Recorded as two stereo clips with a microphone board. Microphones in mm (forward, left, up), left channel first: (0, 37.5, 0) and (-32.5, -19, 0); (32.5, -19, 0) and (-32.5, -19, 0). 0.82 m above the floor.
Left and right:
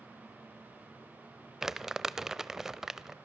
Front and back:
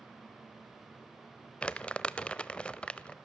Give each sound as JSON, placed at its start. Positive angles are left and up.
{"t": 1.6, "sound": "crumpling", "azimuth_deg": -45, "distance_m": 0.6}